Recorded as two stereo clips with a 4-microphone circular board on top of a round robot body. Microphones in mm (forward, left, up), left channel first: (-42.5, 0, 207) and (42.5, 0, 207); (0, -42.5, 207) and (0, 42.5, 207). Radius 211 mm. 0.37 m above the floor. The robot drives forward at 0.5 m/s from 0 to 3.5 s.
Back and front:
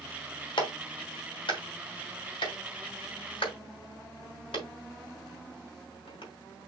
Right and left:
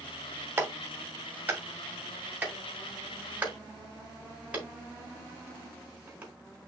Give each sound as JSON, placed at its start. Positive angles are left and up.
{"t": 0.6, "sound": "a clap", "azimuth_deg": 155, "distance_m": 3.0}